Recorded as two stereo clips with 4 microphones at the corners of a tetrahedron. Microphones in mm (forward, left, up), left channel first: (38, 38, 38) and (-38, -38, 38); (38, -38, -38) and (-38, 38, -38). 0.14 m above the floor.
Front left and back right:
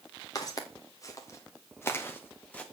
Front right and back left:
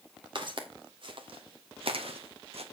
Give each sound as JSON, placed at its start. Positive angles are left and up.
{"t": 0.3, "sound": "footsteps", "azimuth_deg": 100, "distance_m": 2.5}